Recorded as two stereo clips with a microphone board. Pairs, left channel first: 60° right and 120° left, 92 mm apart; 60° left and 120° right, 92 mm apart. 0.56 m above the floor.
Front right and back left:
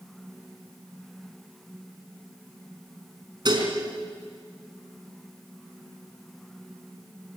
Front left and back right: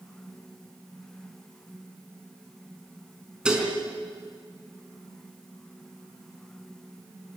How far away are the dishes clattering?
About 4.5 m.